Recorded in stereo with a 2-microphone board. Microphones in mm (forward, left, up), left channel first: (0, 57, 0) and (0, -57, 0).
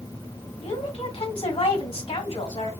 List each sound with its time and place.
0.6 s a woman speaking: 60° left (ahead or behind), 2.0 m